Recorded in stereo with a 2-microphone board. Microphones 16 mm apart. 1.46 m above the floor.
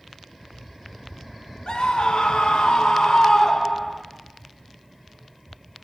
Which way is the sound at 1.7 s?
70° left (ahead or behind).